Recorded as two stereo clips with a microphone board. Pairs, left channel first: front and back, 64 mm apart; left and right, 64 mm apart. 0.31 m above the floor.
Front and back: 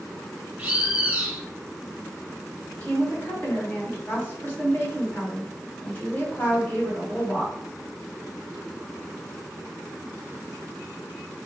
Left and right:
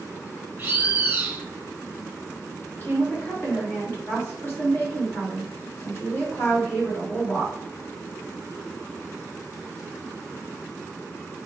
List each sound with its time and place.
0.6 s a bird: 130° right, 1.1 m
2.7 s a woman speaking: 55° left, 2 m